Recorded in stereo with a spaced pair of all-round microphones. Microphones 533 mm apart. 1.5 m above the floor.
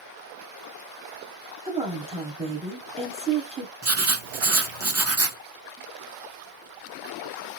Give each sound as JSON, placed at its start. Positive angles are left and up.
{"t": 1.6, "sound": "a woman speaking", "side_deg": -10, "distance_m": 1.0}
{"t": 3.8, "sound": "writing", "side_deg": -30, "distance_m": 0.6}